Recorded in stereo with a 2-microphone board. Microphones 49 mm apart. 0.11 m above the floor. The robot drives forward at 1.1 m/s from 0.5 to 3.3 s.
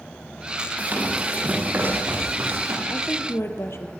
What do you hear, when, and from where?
0.8 s running footsteps: 35° right (ahead or behind), 8 m; by 2.8 s 60° right (ahead or behind), 6 m
2.9 s a woman speaking: 60° left (ahead or behind), 3.5 m